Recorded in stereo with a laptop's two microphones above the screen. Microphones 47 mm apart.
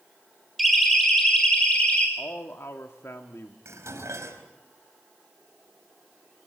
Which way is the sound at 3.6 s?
85° right.